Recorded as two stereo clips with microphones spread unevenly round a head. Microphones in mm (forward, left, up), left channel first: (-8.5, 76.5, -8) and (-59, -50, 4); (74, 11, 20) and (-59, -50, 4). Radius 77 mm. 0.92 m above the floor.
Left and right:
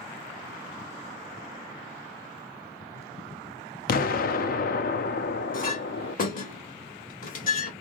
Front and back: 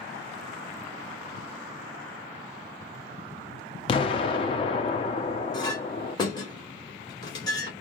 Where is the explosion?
75° left, 0.6 m.